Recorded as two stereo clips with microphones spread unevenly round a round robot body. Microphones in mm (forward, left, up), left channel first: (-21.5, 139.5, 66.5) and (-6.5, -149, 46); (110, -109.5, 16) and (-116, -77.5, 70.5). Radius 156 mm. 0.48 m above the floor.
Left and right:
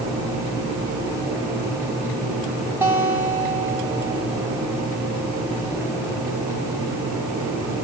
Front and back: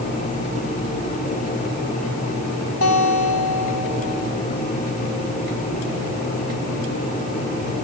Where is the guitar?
5° right, 4.5 m.